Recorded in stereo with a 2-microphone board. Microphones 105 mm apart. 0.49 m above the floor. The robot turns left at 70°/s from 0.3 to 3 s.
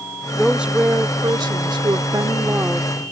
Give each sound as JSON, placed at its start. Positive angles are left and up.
{"t": 0.3, "sound": "a woman speaking", "azimuth_deg": 5}